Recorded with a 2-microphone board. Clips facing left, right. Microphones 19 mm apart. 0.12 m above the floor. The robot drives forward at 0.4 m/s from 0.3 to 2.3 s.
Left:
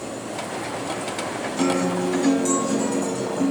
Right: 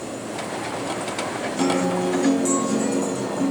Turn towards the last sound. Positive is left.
turn(degrees=0)  # may be behind; listen again after turning